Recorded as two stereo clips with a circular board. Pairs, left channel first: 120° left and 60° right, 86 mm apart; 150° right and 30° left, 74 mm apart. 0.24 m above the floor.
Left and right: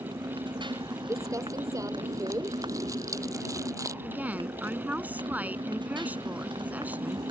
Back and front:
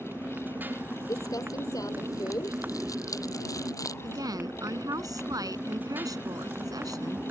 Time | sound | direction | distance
0.0 | a motorcycle | 35° right | ?
1.1 | crumpling | 110° right | ?
4.0 | a woman speaking | 10° left | ?